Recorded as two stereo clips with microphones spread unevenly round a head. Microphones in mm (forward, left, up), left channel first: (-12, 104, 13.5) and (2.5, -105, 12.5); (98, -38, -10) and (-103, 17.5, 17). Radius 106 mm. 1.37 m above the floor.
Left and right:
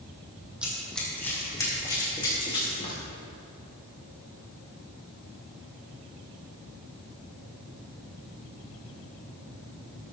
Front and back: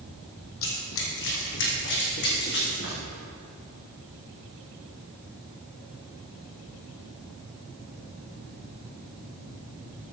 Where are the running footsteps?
Straight ahead, 2.5 m; by 3.0 s 30° left, 5 m.